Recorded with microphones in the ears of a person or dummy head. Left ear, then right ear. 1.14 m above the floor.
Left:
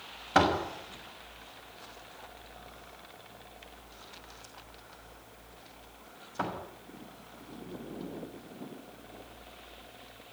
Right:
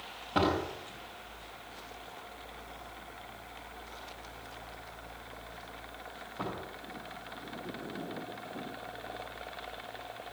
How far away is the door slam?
About 5.5 m.